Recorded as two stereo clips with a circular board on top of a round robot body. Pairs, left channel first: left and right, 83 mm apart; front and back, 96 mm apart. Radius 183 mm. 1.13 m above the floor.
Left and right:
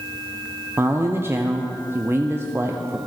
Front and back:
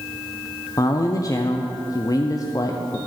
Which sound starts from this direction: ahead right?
A man speaking, at 0.8 s.